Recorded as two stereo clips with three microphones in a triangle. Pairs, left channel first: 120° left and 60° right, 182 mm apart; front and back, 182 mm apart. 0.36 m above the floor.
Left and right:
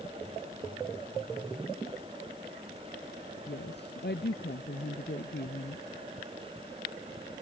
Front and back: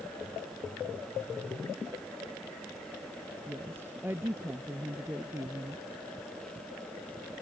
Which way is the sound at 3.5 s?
105° left.